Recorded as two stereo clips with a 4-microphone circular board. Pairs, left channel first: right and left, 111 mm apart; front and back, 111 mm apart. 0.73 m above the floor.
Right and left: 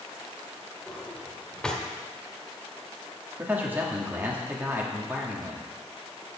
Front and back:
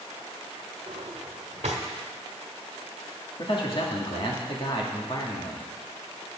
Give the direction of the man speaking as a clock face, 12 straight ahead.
11 o'clock.